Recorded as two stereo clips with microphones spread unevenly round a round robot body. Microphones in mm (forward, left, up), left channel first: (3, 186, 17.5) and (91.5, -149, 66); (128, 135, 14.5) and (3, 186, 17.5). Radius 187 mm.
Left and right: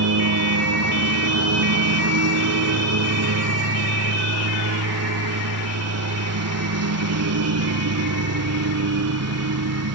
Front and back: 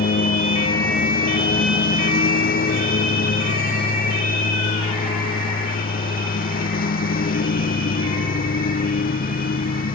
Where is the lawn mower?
30° right.